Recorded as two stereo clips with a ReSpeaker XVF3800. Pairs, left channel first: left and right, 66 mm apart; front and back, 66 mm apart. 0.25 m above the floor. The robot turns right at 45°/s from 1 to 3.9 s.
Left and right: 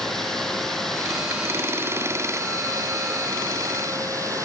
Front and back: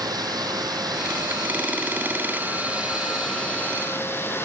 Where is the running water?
175° left, 2.5 m; by 4.4 s 55° right, 2.5 m.